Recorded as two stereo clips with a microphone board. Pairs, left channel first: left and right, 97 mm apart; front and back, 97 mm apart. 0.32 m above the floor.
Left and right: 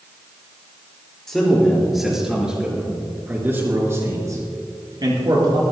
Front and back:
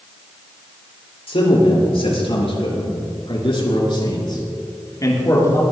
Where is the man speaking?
5° left, 5 m; by 5.6 s 60° right, 4 m.